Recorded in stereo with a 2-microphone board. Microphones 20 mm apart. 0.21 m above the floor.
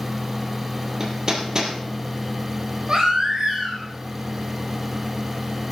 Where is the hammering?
30° right (ahead or behind), 3 m.